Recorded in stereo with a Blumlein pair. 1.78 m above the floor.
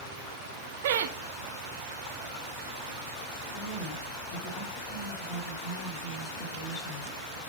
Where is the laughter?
50° right, 0.7 m.